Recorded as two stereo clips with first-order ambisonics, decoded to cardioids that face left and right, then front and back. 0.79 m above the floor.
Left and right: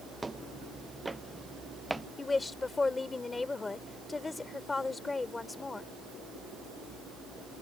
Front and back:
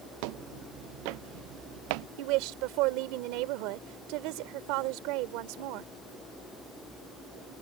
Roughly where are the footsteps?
Behind.